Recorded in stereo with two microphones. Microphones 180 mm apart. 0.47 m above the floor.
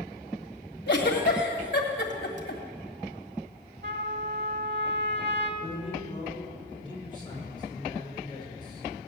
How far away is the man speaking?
About 6.5 m.